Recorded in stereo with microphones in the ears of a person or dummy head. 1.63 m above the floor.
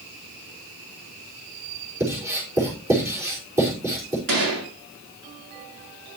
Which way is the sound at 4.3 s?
75° right (ahead or behind).